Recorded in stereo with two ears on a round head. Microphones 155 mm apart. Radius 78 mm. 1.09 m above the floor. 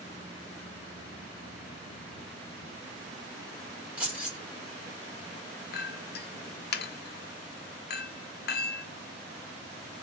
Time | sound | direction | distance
4.0 | keys jangling | 10° right (ahead or behind) | 1.9 m
5.7 | a clink | 60° left (ahead or behind) | 0.7 m